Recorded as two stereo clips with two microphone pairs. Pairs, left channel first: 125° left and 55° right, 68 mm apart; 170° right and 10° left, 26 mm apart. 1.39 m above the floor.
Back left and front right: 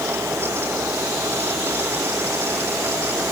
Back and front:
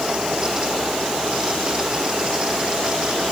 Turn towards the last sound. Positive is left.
No sound to turn to.